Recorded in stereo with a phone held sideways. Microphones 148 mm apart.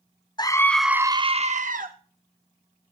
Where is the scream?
25° left (ahead or behind), 0.7 m; by 1.9 s 60° right (ahead or behind), 0.9 m.